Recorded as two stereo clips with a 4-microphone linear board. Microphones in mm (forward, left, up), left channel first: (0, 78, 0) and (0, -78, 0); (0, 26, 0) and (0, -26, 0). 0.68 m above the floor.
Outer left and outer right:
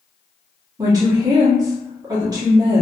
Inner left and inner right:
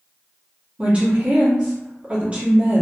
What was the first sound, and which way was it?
A woman speaking, 25° right (ahead or behind).